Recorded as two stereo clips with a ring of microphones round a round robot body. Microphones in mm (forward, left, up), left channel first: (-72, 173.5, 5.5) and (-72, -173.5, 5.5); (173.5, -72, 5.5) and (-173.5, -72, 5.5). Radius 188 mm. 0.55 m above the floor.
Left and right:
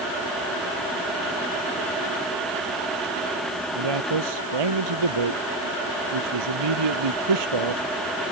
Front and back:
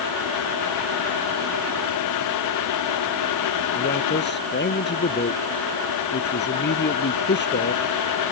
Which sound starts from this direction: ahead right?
A man speaking, at 3.8 s.